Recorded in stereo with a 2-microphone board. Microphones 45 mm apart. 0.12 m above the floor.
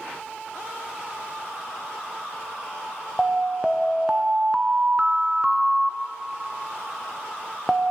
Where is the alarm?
15° right (ahead or behind), 0.8 m.